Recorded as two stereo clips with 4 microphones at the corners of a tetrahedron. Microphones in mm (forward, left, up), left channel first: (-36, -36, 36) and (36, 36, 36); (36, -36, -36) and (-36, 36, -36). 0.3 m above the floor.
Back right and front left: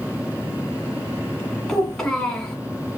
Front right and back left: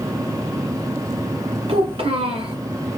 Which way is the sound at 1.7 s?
140° left.